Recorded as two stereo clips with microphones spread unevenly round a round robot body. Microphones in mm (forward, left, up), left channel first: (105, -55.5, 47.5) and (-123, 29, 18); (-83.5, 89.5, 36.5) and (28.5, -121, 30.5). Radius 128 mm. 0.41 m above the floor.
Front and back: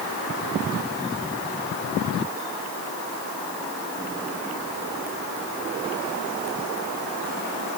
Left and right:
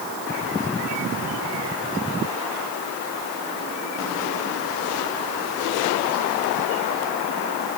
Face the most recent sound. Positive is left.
No sound to turn to.